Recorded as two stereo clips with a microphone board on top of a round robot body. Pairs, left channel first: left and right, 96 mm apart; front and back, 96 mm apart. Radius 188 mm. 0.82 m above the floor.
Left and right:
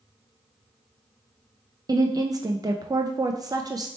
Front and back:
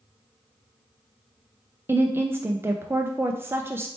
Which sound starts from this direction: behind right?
A woman speaking, at 1.9 s.